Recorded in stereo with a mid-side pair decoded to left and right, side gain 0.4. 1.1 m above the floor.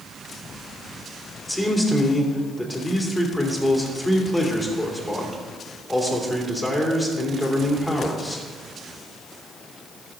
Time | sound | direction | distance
1.5 | a man speaking | 5° left | 3 m